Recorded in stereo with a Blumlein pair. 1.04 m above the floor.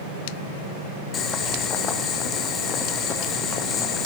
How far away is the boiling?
About 1.1 m.